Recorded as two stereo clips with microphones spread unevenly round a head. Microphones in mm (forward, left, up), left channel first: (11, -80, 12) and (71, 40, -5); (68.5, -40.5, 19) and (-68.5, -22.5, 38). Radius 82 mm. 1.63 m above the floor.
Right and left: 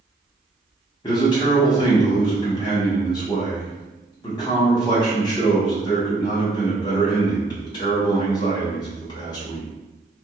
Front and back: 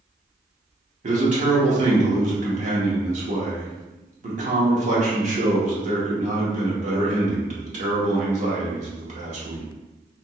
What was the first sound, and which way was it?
A man speaking, 170° right.